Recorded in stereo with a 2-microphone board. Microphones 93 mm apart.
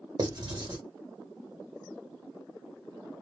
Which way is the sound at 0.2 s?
50° right (ahead or behind).